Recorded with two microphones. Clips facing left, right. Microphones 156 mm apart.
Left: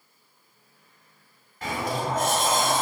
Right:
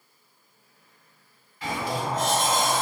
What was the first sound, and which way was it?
A sliding door, 45° left (ahead or behind).